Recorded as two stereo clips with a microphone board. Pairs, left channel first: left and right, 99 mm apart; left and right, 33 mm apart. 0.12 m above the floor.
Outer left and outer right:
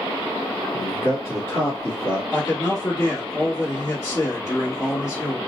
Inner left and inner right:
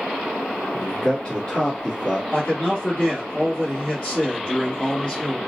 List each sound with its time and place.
0.7 s a man speaking: 35° left (ahead or behind), 1.5 m
2.3 s a man speaking: 35° left (ahead or behind), 2 m